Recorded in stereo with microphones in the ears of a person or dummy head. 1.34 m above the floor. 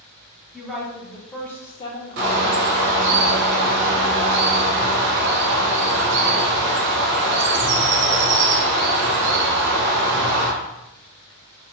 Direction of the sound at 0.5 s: 5° right (ahead or behind).